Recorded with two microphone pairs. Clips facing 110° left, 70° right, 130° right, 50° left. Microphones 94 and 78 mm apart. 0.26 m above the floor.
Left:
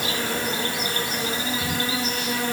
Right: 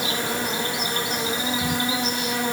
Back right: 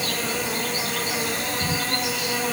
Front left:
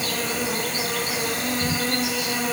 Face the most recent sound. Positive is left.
turn(degrees=-45)